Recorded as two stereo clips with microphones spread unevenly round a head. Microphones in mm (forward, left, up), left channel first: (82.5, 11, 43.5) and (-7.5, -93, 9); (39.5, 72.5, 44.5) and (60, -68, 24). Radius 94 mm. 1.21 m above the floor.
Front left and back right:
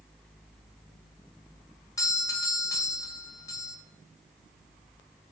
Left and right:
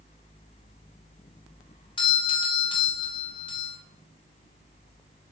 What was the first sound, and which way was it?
A doorbell, 115° left.